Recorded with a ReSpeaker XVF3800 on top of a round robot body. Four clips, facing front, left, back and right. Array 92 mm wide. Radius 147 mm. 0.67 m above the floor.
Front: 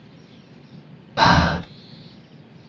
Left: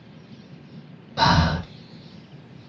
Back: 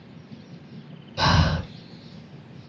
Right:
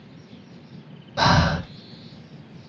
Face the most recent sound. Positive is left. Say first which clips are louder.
# even, front 7 dB
turn(degrees=-5)